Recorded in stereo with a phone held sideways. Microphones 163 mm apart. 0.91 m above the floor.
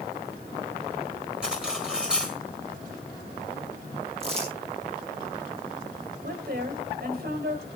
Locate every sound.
1.4 s cutlery clinking: 5° right (ahead or behind), 5 m
4.2 s crumpling: 35° right (ahead or behind), 9 m
6.2 s a woman speaking: 65° right (ahead or behind), 3.5 m